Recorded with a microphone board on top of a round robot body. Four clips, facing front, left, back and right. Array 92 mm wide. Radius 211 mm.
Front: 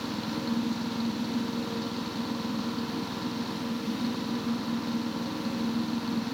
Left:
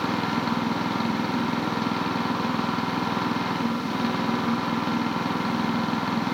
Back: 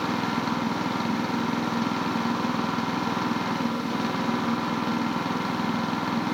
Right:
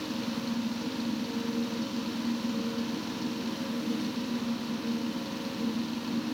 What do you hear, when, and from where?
0.0 s an engine running: 130° left